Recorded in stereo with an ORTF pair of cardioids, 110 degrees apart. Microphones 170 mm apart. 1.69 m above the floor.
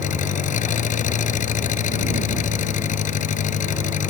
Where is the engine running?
50° left.